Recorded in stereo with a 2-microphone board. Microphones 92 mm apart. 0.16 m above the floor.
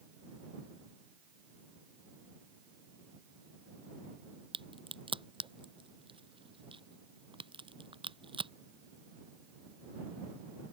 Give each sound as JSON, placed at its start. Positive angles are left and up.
{"t": 4.5, "sound": "a crack", "side_deg": -80}